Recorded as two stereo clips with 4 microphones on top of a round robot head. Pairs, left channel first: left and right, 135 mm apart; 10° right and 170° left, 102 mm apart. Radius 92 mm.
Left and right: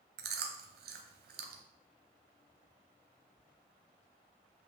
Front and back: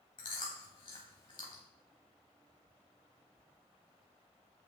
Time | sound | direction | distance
0.2 | chewing | 70° right | 0.7 m